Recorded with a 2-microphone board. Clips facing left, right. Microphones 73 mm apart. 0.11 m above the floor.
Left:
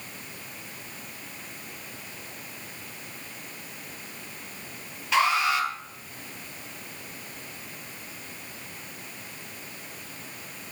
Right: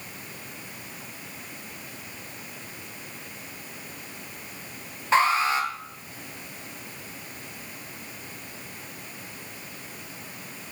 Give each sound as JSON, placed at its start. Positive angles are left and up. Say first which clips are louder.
{"t": 5.1, "sound": "an alarm", "louder": "right 2 dB", "side_deg": -35, "distance_m": 2.0}